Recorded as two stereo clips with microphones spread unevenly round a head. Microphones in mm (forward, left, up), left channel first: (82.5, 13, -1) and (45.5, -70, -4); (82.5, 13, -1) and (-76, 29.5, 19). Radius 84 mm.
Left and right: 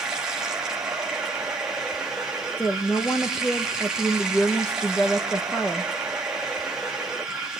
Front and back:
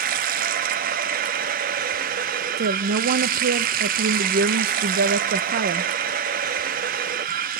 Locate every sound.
0.0 s running water: 160° left, 0.9 m
2.6 s a woman speaking: 145° left, 0.6 m